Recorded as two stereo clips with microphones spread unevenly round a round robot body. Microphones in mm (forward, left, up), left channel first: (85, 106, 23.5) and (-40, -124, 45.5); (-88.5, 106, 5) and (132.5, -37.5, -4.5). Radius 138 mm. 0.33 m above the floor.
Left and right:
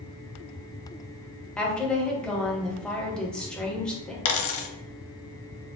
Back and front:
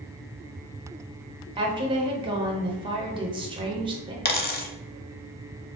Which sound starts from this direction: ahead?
A woman speaking, at 1.6 s.